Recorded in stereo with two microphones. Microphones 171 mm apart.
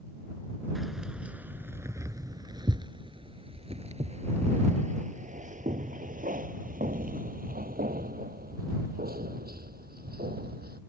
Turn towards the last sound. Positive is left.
turn(degrees=-65)  # may be behind; listen again after turning